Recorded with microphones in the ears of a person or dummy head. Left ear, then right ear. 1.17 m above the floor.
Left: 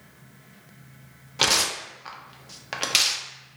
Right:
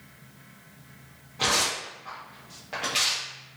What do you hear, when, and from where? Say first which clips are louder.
1.4 s tearing paper: left 3 dB; 65° left (ahead or behind), 0.6 m